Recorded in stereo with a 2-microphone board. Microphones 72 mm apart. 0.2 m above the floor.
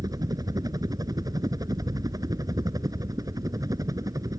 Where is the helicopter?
60° right (ahead or behind); by 4.4 s 55° right (ahead or behind).